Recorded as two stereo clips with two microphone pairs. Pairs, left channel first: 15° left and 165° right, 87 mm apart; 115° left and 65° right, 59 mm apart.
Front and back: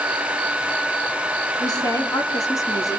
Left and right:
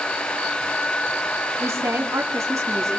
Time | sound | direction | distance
1.6 | a woman speaking | 30° right | 3.5 m